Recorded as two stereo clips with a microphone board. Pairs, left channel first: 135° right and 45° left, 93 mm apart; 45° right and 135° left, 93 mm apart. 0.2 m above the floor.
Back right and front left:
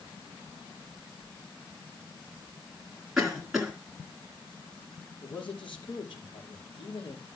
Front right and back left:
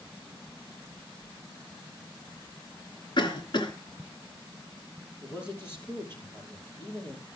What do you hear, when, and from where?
3.2 s a cough: 40° right, 2.5 m
5.2 s a man speaking: 110° right, 5.5 m